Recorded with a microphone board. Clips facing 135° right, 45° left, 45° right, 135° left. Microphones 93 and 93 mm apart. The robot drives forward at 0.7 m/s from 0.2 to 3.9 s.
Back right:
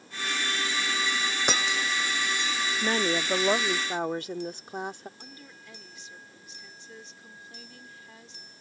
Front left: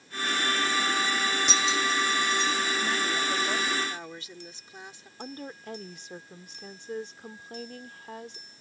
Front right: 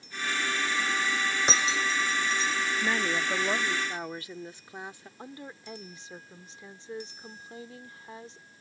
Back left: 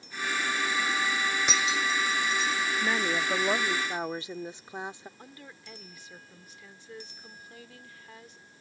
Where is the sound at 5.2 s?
15° left.